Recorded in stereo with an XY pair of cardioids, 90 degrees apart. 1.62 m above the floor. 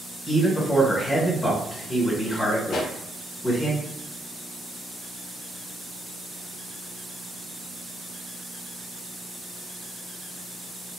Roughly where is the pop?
Ahead left.